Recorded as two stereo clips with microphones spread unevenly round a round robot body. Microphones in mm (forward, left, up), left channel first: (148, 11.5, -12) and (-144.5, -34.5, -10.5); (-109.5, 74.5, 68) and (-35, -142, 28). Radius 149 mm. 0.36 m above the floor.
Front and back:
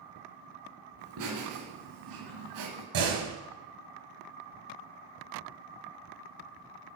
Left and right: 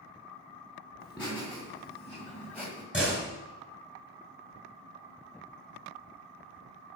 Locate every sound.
1.0 s laughter: 160° right, 3 m; by 2.8 s 165° right, 1.8 m
2.9 s a door slam: 155° right, 3.5 m